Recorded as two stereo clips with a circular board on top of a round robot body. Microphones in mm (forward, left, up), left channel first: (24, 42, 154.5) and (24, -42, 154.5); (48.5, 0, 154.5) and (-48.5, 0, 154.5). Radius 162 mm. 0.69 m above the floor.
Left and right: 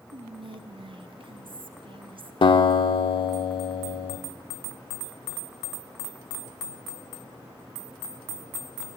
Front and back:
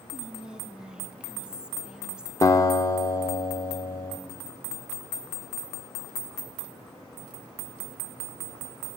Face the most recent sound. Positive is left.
turn(degrees=60)